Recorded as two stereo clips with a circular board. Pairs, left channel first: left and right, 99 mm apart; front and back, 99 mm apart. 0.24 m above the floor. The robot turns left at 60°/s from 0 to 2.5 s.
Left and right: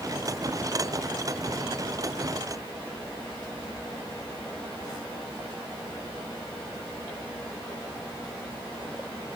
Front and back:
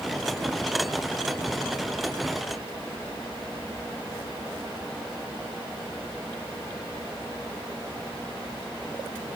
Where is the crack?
No crack in this recording.